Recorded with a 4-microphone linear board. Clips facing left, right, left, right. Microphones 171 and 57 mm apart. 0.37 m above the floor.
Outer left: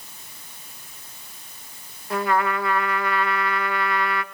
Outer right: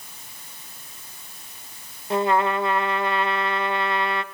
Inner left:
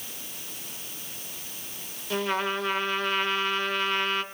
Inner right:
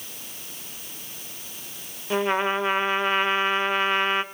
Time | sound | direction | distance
2.1 | a trumpet | 25° right (ahead or behind) | 0.7 m